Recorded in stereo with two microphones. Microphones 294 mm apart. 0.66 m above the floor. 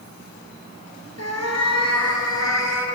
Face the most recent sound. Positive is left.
turn(degrees=60)  # may be behind; listen again after turning